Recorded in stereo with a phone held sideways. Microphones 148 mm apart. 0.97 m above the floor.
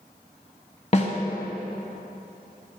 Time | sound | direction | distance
0.9 | a snare drum | 45° left (ahead or behind) | 1.2 m